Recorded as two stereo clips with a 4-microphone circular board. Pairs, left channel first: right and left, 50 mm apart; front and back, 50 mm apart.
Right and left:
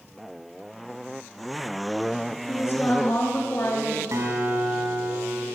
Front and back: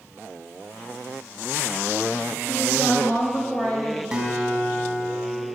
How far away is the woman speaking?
About 4 m.